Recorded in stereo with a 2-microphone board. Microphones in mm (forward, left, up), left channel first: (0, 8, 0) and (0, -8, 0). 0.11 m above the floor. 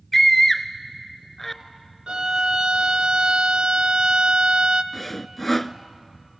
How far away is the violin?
About 0.8 m.